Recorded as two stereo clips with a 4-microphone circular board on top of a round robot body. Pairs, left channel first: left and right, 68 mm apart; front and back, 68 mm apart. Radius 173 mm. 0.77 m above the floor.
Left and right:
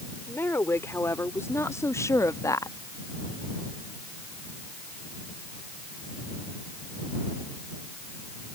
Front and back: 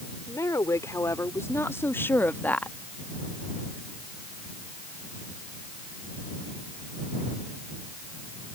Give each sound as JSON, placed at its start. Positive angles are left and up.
{"t": 0.3, "sound": "a woman speaking", "azimuth_deg": 40}